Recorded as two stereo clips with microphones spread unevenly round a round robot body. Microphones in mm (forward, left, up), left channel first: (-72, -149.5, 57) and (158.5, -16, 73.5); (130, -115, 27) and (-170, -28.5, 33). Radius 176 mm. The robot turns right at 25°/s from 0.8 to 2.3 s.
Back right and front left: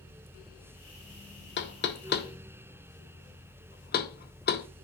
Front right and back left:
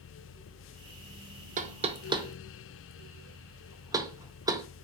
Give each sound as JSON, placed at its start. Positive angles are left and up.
{"t": 1.6, "sound": "knocking", "azimuth_deg": -140, "distance_m": 0.6}